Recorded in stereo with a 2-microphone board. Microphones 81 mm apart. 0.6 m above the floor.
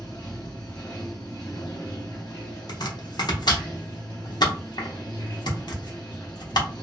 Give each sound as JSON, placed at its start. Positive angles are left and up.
{"t": 0.0, "sound": "running water", "side_deg": 65, "distance_m": 1.5}
{"t": 2.7, "sound": "chopping", "side_deg": 60, "distance_m": 0.6}